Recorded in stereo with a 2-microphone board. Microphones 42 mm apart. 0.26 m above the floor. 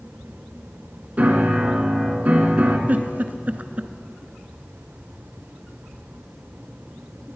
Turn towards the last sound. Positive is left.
turn(degrees=-45)  # may be behind; listen again after turning